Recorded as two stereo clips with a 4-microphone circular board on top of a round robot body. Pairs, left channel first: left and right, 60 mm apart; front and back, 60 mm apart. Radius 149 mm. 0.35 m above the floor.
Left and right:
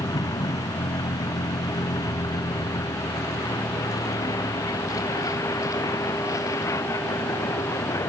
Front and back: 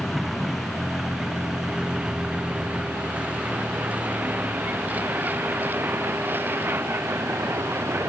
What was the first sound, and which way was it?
A vehicle, 90° left.